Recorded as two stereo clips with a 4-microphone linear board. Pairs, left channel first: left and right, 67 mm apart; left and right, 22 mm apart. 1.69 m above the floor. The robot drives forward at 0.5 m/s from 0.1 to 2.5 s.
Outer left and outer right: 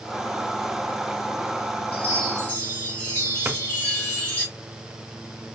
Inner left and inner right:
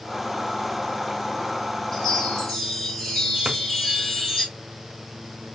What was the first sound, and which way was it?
A chime, 25° left (ahead or behind).